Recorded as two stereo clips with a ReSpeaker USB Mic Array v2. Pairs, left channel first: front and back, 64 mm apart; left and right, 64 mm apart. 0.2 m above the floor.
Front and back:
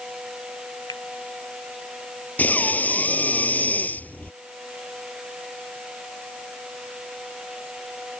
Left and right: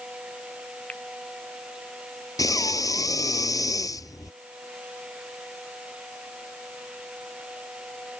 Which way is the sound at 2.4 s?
65° left.